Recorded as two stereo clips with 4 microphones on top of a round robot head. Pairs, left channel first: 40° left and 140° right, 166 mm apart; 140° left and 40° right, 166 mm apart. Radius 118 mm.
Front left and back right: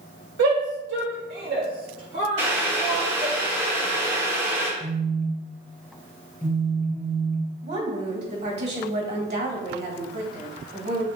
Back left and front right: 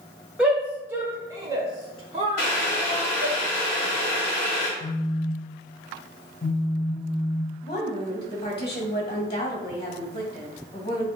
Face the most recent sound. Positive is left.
turn(degrees=-165)